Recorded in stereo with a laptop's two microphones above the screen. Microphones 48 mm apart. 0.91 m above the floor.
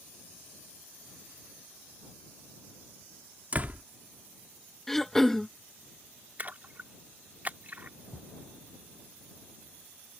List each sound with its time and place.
3.5 s a door slam: 35° right (ahead or behind)
4.9 s throat clearing: 5° left (ahead or behind)
6.4 s a splash: 35° right (ahead or behind)
8.1 s a thud: 35° right (ahead or behind)